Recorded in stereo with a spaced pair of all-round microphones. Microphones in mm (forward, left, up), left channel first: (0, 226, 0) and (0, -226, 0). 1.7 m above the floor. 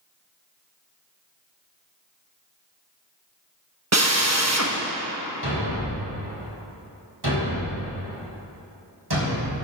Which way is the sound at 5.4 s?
60° right (ahead or behind).